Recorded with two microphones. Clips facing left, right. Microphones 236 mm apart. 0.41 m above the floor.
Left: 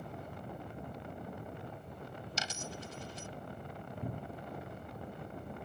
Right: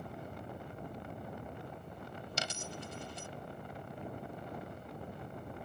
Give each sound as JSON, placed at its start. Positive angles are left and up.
{"t": 2.4, "sound": "a dropped coin", "side_deg": -60}
{"t": 4.0, "sound": "a cupboard door", "side_deg": 40}